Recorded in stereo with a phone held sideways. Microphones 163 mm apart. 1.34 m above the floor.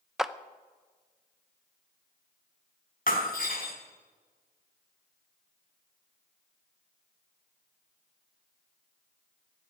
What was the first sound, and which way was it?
A clap, 5° right (ahead or behind).